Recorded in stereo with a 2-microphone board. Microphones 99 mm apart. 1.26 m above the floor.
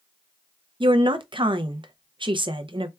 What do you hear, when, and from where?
0.8 s a woman speaking: 55° right (ahead or behind), 0.5 m